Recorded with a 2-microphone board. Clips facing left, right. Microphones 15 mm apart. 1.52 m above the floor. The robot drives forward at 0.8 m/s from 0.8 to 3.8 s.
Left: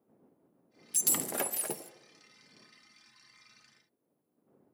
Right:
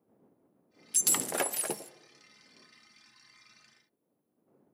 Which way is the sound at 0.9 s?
15° right (ahead or behind).